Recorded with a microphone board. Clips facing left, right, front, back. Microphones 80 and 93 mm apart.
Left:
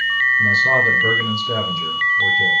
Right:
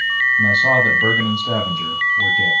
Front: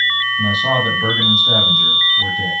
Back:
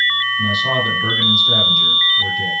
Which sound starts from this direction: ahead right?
A man speaking, at 0.4 s.